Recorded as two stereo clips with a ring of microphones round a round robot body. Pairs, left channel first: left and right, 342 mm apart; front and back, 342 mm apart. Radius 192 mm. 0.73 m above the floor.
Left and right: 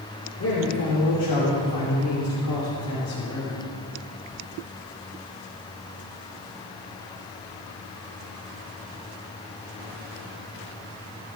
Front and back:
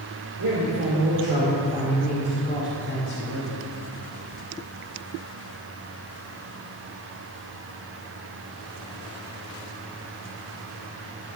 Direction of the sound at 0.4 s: 140° left.